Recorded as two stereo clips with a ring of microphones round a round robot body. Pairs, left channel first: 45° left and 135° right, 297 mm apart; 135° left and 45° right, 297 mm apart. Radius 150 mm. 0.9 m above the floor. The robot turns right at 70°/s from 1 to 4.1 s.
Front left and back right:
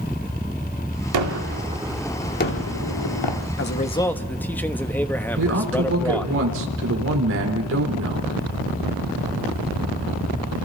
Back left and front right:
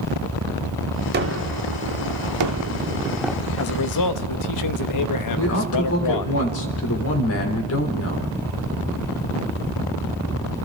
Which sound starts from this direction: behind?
A man speaking, at 5.4 s.